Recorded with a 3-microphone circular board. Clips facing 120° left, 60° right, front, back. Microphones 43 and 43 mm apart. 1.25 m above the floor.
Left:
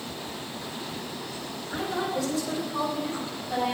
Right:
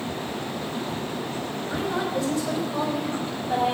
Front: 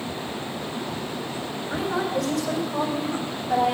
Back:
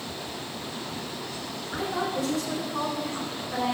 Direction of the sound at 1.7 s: 20° right.